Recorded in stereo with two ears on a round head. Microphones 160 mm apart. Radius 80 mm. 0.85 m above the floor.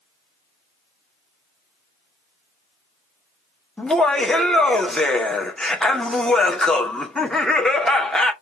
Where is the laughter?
5° left (ahead or behind), 0.8 m.